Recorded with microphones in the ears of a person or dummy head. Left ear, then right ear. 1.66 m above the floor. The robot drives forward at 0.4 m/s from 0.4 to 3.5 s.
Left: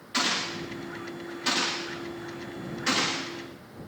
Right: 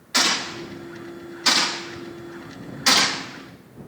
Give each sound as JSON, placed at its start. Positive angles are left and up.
{"t": 0.1, "sound": "a gunshot", "side_deg": -25, "distance_m": 2.5}